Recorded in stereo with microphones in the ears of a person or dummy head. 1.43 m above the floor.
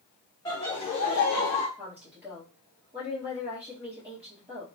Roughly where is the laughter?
Left.